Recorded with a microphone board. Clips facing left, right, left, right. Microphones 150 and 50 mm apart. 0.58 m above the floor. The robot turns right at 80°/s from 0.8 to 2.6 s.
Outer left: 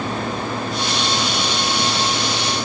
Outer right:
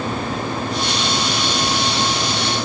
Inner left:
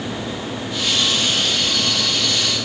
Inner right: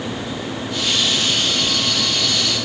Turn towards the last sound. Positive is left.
No sound to turn to.